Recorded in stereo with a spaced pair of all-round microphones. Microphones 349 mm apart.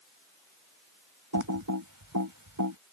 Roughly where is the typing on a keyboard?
Right.